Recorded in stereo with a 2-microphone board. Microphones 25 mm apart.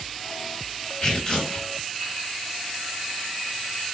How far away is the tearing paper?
About 1.9 m.